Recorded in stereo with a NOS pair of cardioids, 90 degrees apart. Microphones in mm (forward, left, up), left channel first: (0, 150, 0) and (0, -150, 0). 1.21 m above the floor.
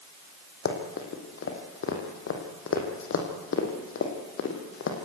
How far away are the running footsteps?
About 4 m.